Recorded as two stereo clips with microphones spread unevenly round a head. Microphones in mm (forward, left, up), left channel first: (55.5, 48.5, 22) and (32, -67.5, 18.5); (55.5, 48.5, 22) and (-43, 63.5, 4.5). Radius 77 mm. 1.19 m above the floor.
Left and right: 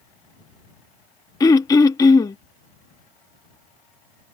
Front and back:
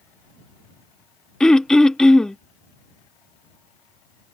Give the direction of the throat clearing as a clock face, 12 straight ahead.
10 o'clock.